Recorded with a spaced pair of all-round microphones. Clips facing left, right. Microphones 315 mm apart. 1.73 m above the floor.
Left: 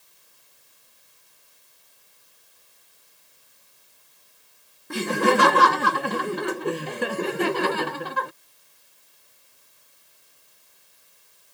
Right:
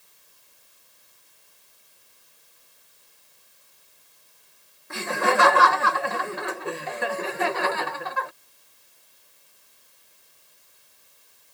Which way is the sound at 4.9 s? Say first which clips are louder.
Left 4 dB; 40° left (ahead or behind).